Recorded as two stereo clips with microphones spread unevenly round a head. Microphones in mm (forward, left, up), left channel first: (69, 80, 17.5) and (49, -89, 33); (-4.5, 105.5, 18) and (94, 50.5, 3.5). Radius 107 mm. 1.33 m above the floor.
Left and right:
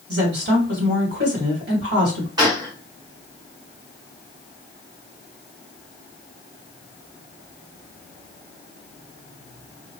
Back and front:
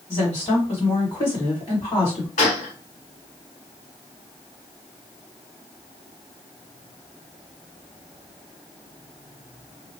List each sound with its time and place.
0.1 s a woman speaking: 140° right, 2 m
2.4 s a gunshot: 170° right, 0.8 m